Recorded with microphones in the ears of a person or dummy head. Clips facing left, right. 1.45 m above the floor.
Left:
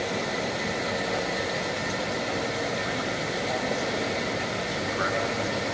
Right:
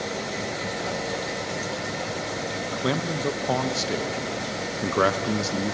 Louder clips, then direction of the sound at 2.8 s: Right 4 dB; 80° right.